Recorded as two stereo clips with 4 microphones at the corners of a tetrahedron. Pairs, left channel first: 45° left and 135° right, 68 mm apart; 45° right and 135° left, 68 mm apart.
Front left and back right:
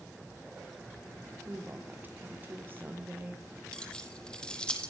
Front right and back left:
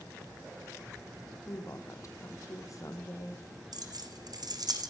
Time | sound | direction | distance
1.5 | a woman speaking | 80° right | 3.5 m
3.7 | keys jangling | 120° left | 3.5 m